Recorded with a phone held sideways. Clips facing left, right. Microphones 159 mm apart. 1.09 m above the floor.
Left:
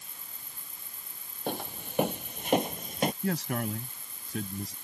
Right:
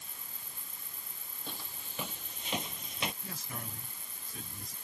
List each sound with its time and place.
1.5 s footsteps: 60° left (ahead or behind); by 3.1 s 45° left (ahead or behind)
3.2 s a man speaking: 80° left